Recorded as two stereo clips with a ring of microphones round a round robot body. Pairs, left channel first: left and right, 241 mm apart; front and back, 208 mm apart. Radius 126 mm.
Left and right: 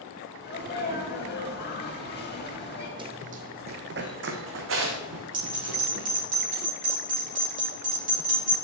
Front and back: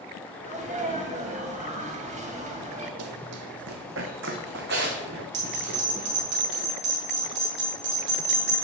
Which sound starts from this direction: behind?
Running footsteps, at 3.0 s.